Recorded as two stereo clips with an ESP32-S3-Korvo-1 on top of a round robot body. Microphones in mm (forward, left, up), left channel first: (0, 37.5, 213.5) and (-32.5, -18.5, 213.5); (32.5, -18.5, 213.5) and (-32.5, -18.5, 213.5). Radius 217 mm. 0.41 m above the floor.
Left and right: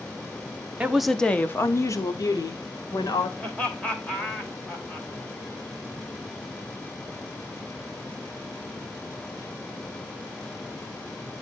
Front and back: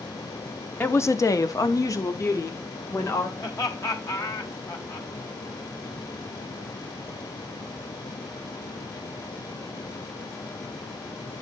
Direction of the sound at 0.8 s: 50° right.